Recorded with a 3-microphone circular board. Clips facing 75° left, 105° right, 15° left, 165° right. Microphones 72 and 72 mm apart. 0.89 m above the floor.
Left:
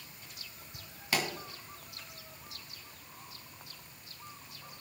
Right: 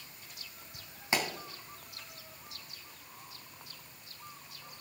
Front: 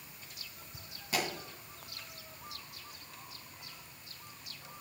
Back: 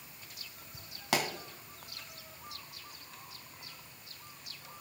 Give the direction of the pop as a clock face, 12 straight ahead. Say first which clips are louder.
Right 1 dB, back 3 dB; 6 o'clock.